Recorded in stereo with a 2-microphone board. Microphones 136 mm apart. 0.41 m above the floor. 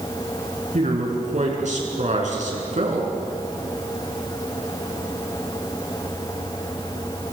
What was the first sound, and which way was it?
A man speaking, 65° right (ahead or behind).